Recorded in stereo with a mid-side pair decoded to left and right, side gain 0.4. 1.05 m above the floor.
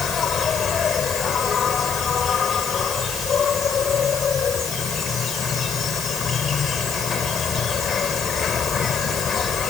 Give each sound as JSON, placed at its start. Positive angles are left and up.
{"t": 0.0, "sound": "an insect", "azimuth_deg": 60}